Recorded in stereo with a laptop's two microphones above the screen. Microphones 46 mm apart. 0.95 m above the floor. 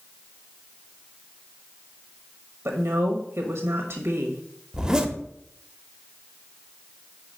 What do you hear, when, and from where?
2.6 s a woman speaking: 65° right (ahead or behind), 1.2 m
4.7 s a zipper: 15° right (ahead or behind), 0.8 m